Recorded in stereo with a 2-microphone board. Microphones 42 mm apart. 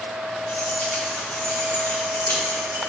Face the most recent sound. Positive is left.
turn(degrees=75)  # may be behind; listen again after turning